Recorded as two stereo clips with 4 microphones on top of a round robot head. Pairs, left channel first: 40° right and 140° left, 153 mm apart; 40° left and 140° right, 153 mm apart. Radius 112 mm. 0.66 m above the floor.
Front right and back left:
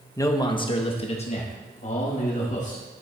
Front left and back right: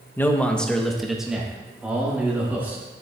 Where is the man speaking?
10° right, 0.9 m; by 2.8 s 65° right, 2.0 m.